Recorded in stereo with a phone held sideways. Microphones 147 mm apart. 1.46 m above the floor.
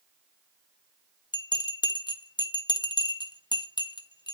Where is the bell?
30° left (ahead or behind), 0.7 m.